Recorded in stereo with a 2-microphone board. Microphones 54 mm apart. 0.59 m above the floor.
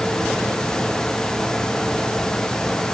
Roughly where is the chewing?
No chewing in this recording.